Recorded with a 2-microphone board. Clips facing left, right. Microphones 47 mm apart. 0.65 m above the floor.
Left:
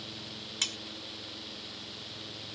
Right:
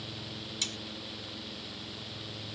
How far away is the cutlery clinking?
About 0.6 m.